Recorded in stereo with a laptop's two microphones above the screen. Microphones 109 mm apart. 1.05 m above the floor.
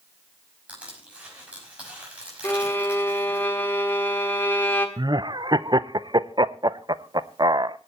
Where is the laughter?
40° right (ahead or behind), 0.5 m.